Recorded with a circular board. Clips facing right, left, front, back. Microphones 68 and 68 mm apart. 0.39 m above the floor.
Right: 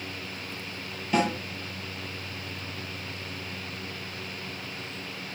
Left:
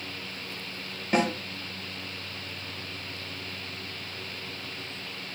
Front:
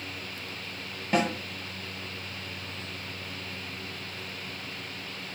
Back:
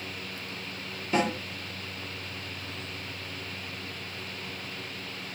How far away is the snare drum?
About 3.5 m.